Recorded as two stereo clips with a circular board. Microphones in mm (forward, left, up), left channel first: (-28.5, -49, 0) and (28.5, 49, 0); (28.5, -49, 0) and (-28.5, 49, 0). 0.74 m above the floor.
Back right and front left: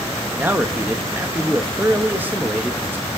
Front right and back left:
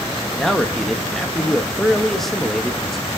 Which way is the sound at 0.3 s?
20° left.